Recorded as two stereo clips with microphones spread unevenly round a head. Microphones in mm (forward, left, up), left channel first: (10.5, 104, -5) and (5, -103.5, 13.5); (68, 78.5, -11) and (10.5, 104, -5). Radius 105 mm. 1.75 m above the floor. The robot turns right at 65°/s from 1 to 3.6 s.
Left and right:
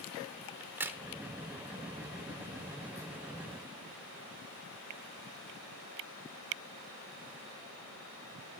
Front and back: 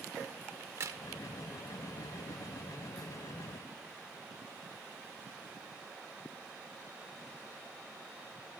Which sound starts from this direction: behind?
A crack, at 0.6 s.